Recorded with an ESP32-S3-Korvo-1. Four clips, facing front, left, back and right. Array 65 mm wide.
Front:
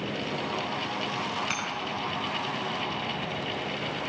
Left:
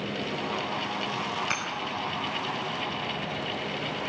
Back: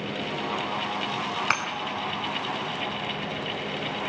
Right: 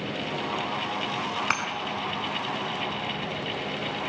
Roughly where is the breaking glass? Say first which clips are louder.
Right 4 dB, back 6 dB; behind right.